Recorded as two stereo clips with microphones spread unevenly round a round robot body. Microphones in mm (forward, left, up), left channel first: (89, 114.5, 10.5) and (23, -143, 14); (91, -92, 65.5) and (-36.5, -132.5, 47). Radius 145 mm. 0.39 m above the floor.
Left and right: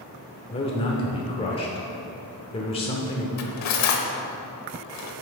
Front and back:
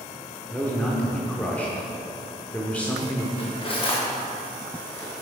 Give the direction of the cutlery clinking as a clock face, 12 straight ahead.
10 o'clock.